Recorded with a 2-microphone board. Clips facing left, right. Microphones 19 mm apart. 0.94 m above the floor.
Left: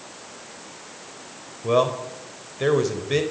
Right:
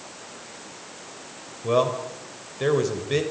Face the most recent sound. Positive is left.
turn(degrees=5)  # may be behind; listen again after turning